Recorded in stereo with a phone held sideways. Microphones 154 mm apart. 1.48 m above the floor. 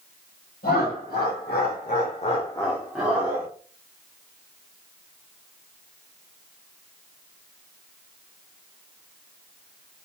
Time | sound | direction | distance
0.6 | laughter | 80° left | 1.4 m